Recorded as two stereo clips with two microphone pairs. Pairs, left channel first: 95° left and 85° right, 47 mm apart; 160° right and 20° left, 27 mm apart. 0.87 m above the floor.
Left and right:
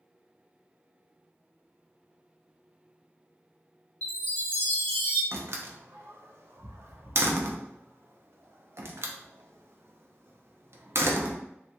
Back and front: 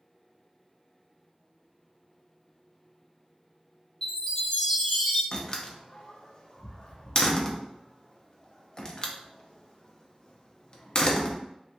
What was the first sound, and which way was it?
A chime, 145° left.